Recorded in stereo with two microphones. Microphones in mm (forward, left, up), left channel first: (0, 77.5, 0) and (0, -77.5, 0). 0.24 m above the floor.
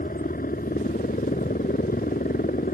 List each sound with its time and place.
0.0 s a helicopter: 65° left (ahead or behind)